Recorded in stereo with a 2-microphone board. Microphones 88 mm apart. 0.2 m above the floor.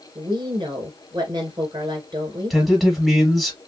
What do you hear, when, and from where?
0.1 s a woman speaking: 55° right (ahead or behind), 3 m
2.5 s a man speaking: centre (ahead or behind), 1.4 m